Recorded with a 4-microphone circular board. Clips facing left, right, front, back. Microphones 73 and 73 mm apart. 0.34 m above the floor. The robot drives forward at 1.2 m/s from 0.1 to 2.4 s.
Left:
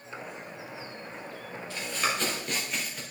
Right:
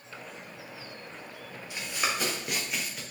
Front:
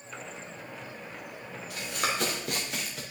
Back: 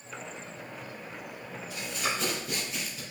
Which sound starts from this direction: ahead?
Running footsteps, at 1.7 s.